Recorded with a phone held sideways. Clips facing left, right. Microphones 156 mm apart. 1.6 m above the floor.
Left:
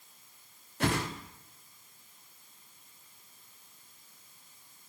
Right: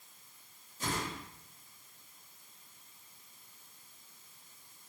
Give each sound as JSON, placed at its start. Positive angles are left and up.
{"t": 0.8, "sound": "a whoosh", "side_deg": 65, "distance_m": 0.5}